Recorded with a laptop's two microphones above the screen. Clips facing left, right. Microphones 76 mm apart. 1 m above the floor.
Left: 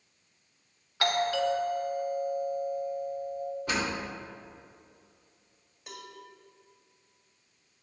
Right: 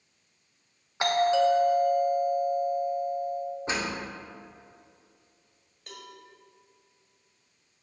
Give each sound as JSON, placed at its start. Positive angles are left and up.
{"t": 1.0, "sound": "a doorbell", "side_deg": -20, "distance_m": 1.0}
{"t": 3.7, "sound": "a door slam", "side_deg": -25, "distance_m": 2.0}
{"t": 5.9, "sound": "a cowbell", "side_deg": 5, "distance_m": 1.9}